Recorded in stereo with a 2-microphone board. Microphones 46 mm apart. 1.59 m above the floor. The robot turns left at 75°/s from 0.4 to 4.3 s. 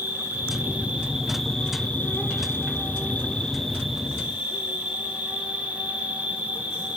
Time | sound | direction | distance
0.0 | an insect | 110° right | 1.2 m